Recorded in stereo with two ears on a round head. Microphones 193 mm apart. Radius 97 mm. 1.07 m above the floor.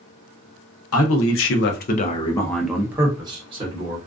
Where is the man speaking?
75° left (ahead or behind), 0.8 m; by 4.0 s 30° right (ahead or behind), 1.2 m.